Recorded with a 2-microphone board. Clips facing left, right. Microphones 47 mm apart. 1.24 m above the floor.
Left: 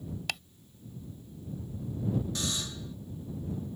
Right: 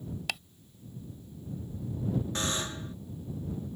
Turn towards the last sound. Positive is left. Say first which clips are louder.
# right 3 dB
turn(degrees=-40)  # may be behind; listen again after turning